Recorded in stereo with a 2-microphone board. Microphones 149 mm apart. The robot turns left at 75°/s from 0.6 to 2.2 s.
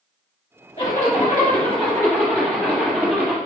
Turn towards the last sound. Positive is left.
turn(degrees=10)